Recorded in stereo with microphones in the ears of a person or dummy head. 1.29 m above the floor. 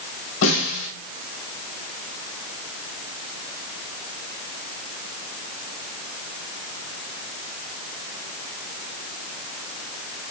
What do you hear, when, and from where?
0.4 s a snare drum: 85° left, 3.5 m